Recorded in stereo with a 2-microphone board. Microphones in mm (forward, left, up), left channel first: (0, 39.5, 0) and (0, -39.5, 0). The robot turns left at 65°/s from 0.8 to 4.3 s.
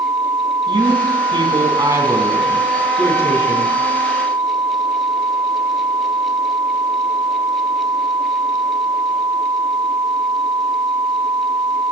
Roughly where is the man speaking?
Ahead right.